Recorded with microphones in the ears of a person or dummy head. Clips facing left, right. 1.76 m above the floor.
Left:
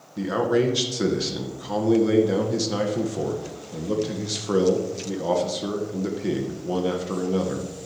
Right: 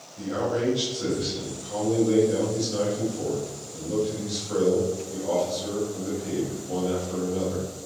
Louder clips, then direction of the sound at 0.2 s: Left 5 dB; 80° left.